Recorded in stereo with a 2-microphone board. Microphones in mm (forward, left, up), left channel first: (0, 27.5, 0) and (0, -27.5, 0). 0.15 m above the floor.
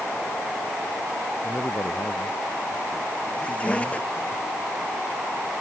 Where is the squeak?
20° left (ahead or behind).